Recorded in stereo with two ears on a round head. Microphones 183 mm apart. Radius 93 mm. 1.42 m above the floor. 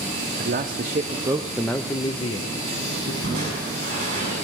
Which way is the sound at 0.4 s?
50° right (ahead or behind).